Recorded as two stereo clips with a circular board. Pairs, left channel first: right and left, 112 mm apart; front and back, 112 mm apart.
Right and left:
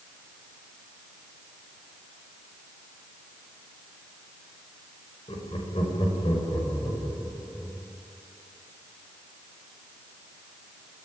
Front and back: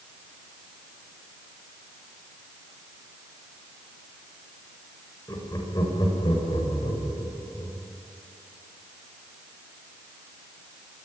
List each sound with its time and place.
5.3 s laughter: 60° right, 6 m; by 7.8 s 30° right, 7.5 m